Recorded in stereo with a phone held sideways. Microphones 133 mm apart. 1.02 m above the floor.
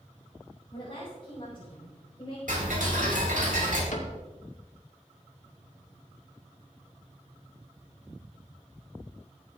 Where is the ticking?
75° right (ahead or behind), 4 m.